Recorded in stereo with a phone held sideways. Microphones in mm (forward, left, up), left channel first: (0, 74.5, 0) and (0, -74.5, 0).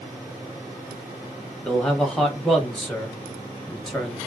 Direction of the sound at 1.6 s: 5° left (ahead or behind).